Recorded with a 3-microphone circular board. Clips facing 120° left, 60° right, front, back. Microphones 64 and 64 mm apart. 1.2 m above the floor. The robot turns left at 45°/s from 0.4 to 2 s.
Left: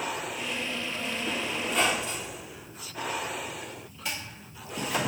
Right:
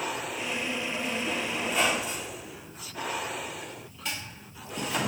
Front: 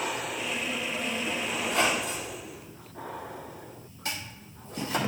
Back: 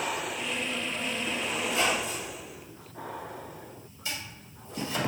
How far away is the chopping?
About 2 m.